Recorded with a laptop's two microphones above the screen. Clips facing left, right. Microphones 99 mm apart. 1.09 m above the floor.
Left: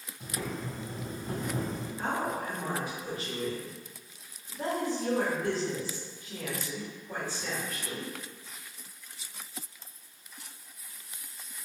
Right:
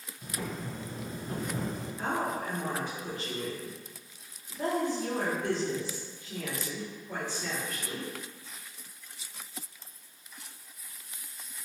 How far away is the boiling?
About 1.5 m.